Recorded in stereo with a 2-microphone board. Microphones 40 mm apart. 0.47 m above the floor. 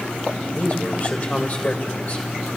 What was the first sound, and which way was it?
A man speaking, 45° left (ahead or behind).